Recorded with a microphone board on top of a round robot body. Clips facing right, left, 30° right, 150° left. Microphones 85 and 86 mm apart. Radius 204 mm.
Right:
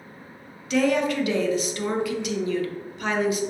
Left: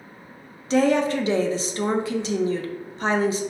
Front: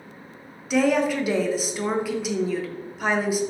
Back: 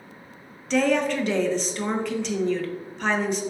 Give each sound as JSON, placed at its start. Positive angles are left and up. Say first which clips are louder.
{"t": 0.7, "sound": "a woman speaking", "louder": "left 2 dB, front 1 dB", "azimuth_deg": 50, "distance_m": 0.6}